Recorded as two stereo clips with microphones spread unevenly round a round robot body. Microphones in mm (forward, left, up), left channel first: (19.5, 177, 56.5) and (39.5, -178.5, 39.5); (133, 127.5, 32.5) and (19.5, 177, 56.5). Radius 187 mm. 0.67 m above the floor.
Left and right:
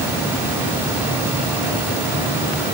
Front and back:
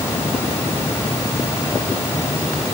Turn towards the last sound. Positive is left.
No sound to turn to.